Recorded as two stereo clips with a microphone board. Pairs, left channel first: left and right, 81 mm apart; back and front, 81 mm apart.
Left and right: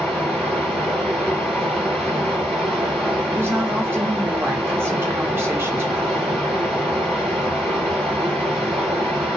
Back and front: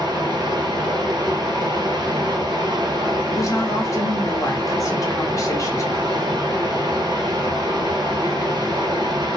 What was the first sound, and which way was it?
Running water, 5° left.